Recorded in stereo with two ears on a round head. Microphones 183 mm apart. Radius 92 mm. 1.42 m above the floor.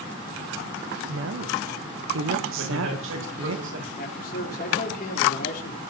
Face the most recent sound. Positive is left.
turn(degrees=45)  # may be behind; listen again after turning